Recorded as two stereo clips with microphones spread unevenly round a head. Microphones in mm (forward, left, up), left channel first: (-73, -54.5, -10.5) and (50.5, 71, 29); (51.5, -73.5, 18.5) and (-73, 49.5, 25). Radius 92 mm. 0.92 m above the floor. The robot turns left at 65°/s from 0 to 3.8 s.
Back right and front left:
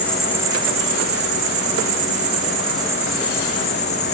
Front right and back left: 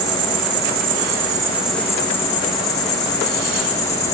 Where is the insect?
155° left, 1.3 m; by 4.1 s 95° right, 1.3 m.